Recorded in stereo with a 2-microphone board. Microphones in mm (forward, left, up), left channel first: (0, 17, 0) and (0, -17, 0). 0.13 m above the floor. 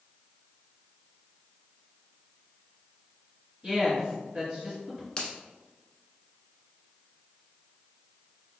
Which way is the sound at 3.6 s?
40° right (ahead or behind).